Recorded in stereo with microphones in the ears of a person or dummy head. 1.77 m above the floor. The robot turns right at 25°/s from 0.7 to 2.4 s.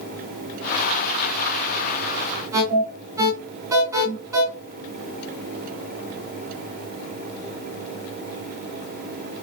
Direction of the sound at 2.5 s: 15° right (ahead or behind).